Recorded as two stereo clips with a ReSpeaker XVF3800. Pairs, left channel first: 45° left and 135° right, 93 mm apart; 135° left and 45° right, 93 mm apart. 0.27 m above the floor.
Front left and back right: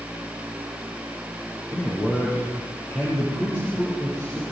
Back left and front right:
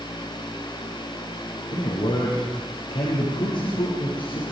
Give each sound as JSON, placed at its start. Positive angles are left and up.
{"t": 1.7, "sound": "a man speaking", "azimuth_deg": 110, "distance_m": 5.5}